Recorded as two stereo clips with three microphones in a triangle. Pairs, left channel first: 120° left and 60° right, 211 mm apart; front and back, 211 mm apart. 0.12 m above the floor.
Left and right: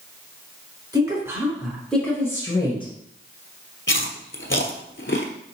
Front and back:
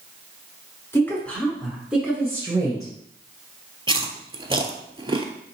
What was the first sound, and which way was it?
A woman speaking, 50° right.